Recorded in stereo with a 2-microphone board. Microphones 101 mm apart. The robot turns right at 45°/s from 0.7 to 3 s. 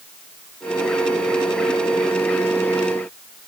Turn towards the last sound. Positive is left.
No sound to turn to.